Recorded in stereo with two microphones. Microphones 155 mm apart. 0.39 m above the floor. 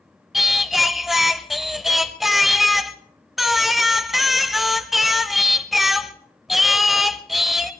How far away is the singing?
About 0.7 m.